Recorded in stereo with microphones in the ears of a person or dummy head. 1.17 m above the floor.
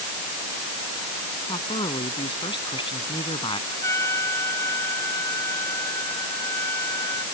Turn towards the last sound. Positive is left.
turn(degrees=10)  # may be behind; listen again after turning